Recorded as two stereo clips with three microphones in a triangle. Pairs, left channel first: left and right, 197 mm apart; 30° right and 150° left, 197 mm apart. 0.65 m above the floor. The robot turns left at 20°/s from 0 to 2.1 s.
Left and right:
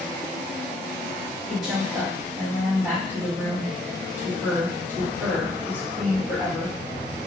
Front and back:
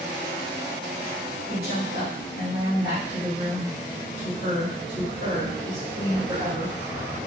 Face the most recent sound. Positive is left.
turn(degrees=-10)